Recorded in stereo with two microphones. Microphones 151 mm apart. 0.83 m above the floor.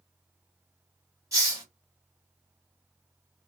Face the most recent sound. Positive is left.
turn(degrees=-25)  # may be behind; listen again after turning